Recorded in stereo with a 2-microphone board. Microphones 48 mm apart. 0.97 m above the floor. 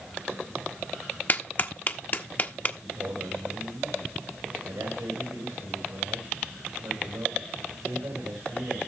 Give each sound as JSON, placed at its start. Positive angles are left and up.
{"t": 1.3, "sound": "a clap", "side_deg": 40, "distance_m": 0.8}
{"t": 2.8, "sound": "a man speaking", "side_deg": -75, "distance_m": 3.5}